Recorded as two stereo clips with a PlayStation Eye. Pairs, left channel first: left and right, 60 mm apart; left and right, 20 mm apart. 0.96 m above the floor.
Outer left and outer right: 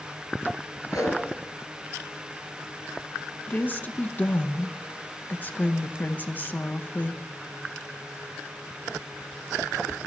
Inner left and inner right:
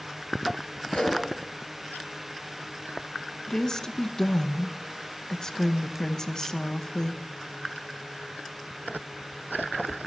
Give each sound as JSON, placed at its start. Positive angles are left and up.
{"t": 0.9, "sound": "a whoosh", "side_deg": 80, "distance_m": 3.5}
{"t": 3.5, "sound": "a woman speaking", "side_deg": 35, "distance_m": 0.7}